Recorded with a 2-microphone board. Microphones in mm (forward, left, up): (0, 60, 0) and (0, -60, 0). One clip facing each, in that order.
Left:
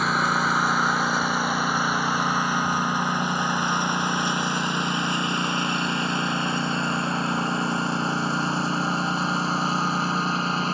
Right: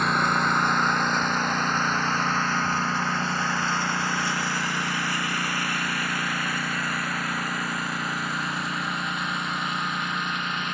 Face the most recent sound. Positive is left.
turn(degrees=35)  # may be behind; listen again after turning